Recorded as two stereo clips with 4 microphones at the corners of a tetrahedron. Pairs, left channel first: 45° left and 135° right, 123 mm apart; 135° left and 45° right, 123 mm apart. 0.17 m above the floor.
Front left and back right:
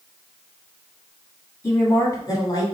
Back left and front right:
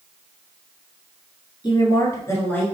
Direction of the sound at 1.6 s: 105° left.